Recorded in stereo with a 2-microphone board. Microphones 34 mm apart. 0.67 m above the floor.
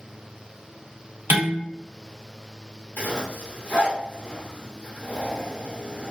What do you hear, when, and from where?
1.3 s dishes clattering: 75° right (ahead or behind), 1.0 m
3.0 s a zipper: 70° left (ahead or behind), 1.1 m